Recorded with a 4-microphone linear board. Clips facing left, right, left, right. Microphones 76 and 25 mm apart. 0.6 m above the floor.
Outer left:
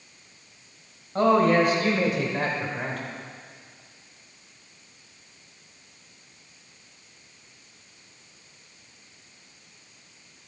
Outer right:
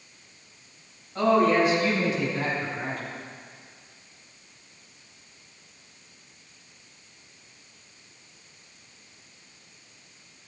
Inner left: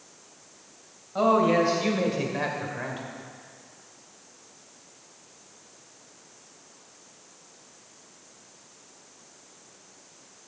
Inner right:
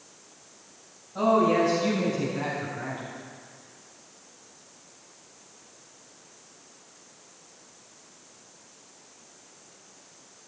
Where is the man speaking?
45° left (ahead or behind), 2.5 m; by 3.0 s 70° left (ahead or behind), 2 m.